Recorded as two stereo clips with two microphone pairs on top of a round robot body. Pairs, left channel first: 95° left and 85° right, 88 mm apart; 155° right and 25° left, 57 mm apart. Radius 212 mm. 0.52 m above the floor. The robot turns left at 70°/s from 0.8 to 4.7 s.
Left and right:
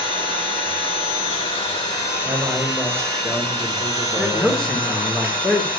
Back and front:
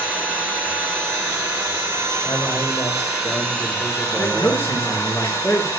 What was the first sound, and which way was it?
An engine running, 130° left.